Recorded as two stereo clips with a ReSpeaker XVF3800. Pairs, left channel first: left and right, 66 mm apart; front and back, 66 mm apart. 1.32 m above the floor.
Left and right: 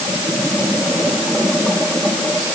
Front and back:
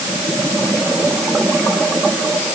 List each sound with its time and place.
Only background noise.